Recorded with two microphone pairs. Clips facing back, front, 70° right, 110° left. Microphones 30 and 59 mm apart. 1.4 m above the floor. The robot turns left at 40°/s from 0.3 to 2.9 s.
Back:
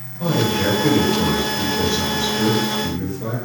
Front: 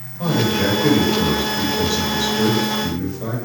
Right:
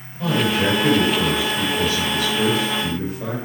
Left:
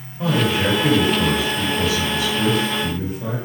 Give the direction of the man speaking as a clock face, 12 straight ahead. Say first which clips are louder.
Front 1 dB, even; 11 o'clock.